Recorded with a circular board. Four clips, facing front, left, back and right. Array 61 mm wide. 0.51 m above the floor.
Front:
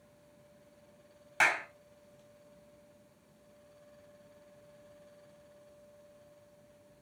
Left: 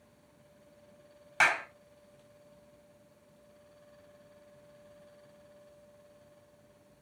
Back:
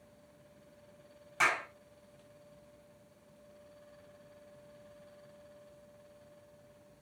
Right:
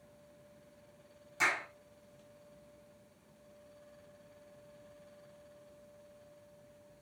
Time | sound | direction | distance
1.4 | a clap | 65° left | 2.5 m